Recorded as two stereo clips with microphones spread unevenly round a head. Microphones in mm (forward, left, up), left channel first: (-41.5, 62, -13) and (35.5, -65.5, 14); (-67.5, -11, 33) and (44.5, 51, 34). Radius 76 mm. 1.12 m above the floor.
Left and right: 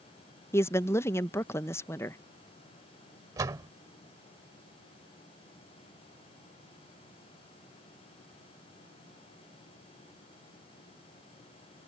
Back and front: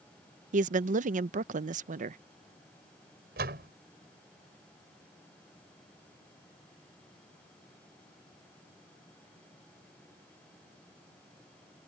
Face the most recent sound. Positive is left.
turn(degrees=10)